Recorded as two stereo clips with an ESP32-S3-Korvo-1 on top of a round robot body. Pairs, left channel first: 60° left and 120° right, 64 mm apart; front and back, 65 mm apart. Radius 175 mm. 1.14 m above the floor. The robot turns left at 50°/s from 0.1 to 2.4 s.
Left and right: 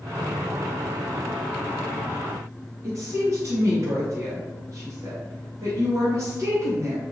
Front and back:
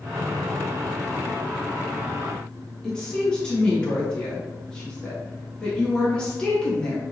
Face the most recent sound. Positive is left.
turn(degrees=-75)